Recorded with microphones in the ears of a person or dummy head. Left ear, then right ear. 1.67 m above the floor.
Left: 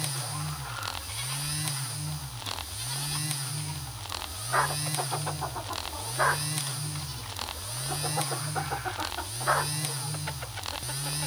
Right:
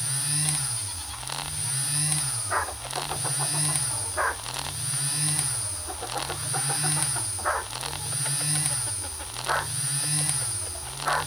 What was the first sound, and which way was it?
Only background noise.